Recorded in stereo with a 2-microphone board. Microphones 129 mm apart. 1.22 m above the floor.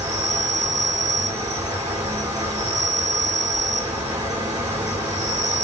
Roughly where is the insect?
Right.